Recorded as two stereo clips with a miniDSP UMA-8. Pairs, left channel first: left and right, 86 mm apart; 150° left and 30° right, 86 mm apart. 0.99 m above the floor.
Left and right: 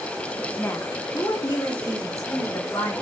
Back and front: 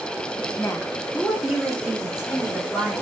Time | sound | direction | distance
0.6 | a woman speaking | 140° left | 0.5 m